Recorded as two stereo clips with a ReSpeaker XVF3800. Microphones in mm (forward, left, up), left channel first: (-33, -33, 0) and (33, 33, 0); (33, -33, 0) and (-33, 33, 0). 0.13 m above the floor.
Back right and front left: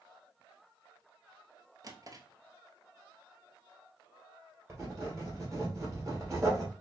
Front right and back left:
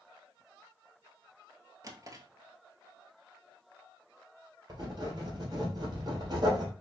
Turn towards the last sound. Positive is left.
turn(degrees=95)